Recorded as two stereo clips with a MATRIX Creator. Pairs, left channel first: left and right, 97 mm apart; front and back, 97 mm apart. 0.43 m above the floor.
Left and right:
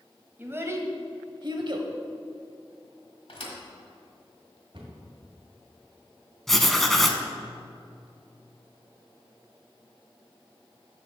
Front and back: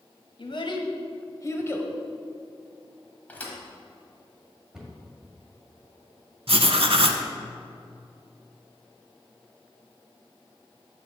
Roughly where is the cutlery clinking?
I don't hear cutlery clinking.